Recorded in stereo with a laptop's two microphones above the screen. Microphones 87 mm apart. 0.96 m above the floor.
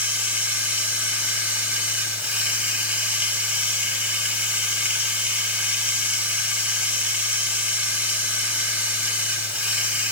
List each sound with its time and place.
0.0 s running water: 15° right (ahead or behind), 5 m